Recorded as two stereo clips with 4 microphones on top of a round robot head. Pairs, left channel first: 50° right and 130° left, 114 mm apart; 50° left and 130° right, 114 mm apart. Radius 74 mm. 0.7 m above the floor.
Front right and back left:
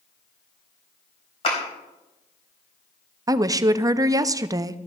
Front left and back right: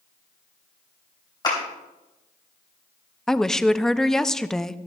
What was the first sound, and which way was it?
A clap, 5° right.